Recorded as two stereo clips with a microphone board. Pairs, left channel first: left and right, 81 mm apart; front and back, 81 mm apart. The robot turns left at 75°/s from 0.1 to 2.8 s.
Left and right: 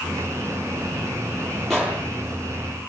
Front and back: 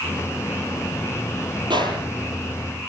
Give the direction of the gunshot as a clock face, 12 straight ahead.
6 o'clock.